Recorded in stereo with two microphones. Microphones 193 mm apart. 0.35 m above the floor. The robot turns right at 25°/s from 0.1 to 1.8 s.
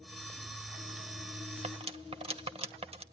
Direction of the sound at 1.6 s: 35° right (ahead or behind).